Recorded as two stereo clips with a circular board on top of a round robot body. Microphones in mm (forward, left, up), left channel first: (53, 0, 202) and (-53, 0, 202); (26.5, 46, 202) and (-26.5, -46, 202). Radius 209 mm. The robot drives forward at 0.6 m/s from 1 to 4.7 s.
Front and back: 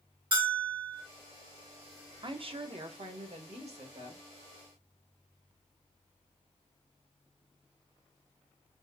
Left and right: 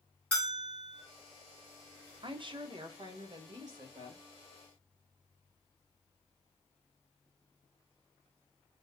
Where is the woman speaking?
150° right, 0.7 m; by 4.2 s 170° right, 1.8 m.